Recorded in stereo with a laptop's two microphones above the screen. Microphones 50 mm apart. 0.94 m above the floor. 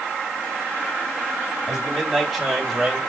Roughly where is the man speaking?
Centre.